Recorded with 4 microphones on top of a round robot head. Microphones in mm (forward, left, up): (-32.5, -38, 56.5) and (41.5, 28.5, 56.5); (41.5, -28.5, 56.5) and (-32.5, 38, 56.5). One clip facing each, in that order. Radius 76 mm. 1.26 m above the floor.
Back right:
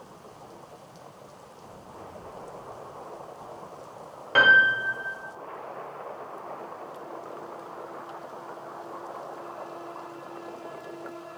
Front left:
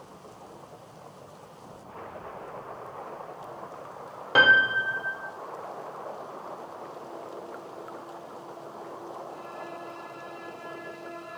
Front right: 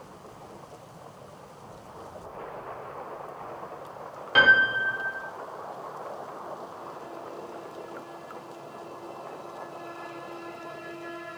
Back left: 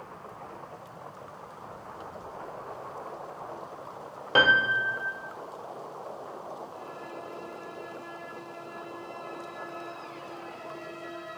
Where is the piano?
100° left, 0.5 m.